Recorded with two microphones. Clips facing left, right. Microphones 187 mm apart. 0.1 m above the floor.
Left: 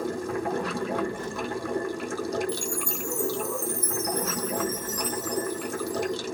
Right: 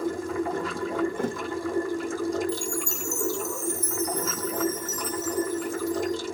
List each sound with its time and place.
0.0 s running water: 75° left (ahead or behind), 1.5 m
1.2 s a thud: 60° right (ahead or behind), 0.6 m
2.5 s a chime: 25° right (ahead or behind), 1.5 m